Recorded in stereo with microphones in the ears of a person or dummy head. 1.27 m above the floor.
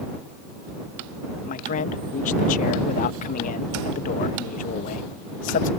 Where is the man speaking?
45° left (ahead or behind).